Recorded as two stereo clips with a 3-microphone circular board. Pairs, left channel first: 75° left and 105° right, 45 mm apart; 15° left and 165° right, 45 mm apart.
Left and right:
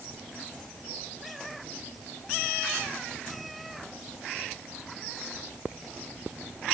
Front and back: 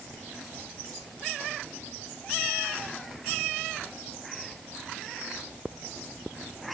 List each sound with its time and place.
Only background noise.